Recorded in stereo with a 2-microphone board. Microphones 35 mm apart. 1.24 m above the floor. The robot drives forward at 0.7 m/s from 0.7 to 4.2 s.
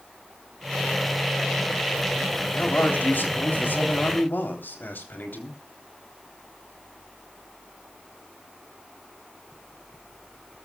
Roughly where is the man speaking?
Left.